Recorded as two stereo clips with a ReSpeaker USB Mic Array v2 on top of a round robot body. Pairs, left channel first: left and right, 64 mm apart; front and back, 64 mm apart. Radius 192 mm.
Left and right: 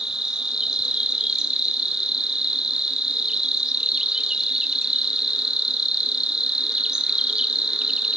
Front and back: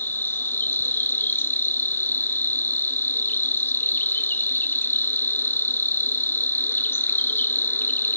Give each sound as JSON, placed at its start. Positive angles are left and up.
{"t": 0.0, "sound": "an insect", "azimuth_deg": -15, "distance_m": 0.8}